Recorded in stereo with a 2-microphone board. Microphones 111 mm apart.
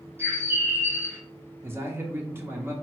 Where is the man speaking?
20° right (ahead or behind), 0.7 m.